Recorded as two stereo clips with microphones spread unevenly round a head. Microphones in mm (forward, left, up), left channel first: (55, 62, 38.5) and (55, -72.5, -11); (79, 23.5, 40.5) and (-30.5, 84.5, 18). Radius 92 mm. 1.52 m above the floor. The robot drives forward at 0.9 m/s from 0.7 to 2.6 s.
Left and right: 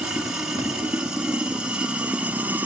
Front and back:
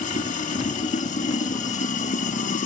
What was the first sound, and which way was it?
Running water, 5° right.